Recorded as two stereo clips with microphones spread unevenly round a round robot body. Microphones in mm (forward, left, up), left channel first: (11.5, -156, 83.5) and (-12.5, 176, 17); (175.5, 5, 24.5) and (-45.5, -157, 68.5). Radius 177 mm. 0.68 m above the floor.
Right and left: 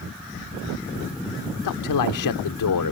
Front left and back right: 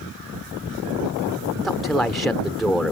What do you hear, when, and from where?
1.6 s a man speaking: 50° right